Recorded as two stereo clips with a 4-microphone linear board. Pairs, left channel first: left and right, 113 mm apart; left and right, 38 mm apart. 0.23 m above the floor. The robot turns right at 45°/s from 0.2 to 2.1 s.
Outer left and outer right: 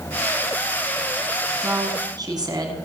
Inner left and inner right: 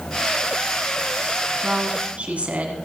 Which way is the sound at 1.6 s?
20° right (ahead or behind).